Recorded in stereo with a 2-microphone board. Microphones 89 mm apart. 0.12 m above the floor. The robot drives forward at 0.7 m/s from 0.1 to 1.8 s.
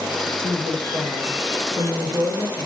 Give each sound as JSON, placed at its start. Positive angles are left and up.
{"t": 0.4, "sound": "a woman speaking", "side_deg": -60, "distance_m": 3.0}